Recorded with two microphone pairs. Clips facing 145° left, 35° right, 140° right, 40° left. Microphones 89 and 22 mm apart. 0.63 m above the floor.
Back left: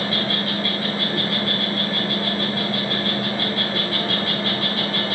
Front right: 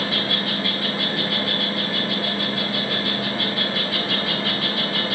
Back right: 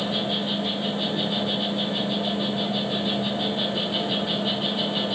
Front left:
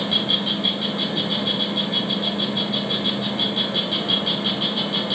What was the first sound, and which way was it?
An insect, 50° left.